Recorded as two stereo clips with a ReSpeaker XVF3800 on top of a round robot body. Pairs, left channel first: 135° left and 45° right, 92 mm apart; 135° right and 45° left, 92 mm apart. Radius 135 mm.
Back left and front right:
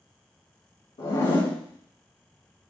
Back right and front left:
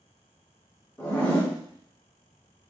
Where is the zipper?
155° left, 2 m.